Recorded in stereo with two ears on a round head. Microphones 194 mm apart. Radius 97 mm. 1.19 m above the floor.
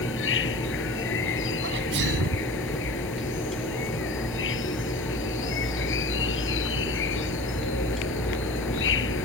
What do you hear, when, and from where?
0.0 s an insect: 60° left (ahead or behind)
1.6 s a sneeze: 55° right (ahead or behind)